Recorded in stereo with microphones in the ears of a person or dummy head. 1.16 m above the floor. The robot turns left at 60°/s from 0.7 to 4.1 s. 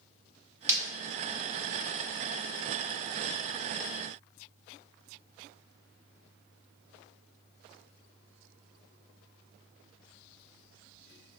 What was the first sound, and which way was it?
Breaking glass, 15° right (ahead or behind).